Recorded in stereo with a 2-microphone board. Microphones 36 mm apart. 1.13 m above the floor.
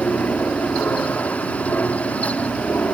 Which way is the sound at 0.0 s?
65° left (ahead or behind).